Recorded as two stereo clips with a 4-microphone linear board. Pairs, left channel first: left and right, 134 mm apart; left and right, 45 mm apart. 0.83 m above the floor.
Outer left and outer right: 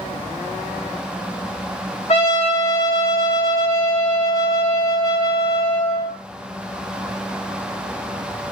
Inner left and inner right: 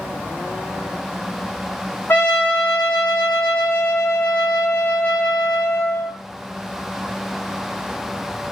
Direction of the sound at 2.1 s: 55° left (ahead or behind).